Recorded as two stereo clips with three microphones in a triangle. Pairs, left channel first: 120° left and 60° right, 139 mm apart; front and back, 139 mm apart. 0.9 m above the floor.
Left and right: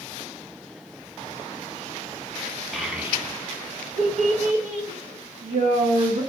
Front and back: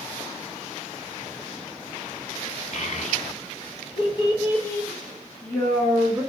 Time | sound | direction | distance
2.7 | a child speaking | 30° left | 0.8 m